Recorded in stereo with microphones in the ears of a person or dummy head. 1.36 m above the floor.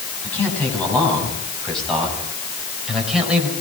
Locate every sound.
0.2 s a man speaking: 10° left (ahead or behind), 9 m; by 3.5 s 5° right (ahead or behind), 5.5 m